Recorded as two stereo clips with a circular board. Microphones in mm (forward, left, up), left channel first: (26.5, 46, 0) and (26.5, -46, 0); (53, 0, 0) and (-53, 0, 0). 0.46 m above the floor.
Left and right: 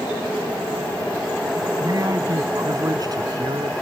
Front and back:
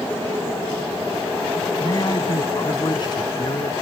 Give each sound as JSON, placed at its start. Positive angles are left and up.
{"t": 1.8, "sound": "a man speaking", "azimuth_deg": -50}